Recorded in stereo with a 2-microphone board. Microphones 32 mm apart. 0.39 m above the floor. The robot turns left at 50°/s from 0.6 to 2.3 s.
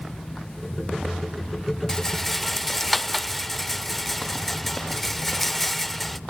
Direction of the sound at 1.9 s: 20° left (ahead or behind).